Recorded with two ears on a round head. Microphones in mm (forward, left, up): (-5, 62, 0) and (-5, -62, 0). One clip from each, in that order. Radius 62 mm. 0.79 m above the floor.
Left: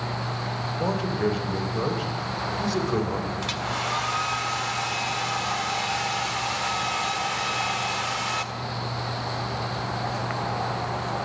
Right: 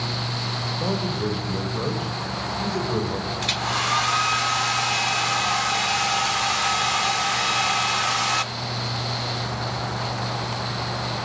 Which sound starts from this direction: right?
A hair dryer, at 3.4 s.